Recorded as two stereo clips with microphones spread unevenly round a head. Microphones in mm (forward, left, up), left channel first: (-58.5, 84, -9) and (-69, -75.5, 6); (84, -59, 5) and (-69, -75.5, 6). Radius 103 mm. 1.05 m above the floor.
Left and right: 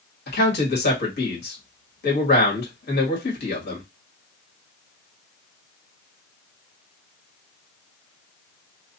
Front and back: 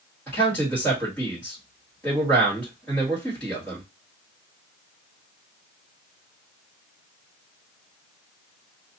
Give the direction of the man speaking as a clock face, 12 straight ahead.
9 o'clock.